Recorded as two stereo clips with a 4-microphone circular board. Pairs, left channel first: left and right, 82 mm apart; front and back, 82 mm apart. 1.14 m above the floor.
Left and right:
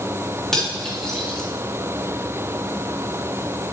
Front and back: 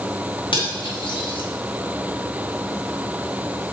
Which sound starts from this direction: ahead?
Cutlery clinking, at 0.5 s.